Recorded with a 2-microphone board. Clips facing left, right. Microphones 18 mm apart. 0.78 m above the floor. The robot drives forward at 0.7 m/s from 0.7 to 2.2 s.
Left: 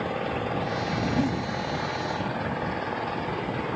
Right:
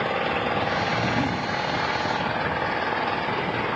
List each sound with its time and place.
0.0 s an engine running: 35° right (ahead or behind); by 3.8 s 30° right (ahead or behind)
1.2 s a giggle: 15° left (ahead or behind)